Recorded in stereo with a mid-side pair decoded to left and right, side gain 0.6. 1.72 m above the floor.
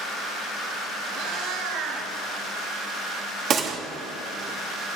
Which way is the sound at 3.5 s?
45° right.